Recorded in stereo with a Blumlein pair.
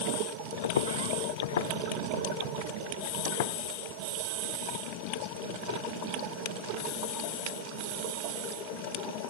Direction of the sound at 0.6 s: 65° left.